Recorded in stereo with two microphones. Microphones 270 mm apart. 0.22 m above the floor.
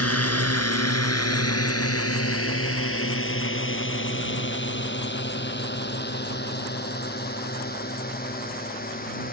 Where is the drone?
60° left (ahead or behind); by 9.3 s 35° left (ahead or behind).